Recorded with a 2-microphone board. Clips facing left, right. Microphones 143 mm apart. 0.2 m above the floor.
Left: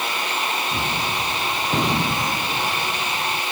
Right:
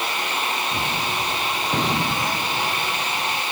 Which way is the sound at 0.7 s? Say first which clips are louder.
Even; 5° left (ahead or behind).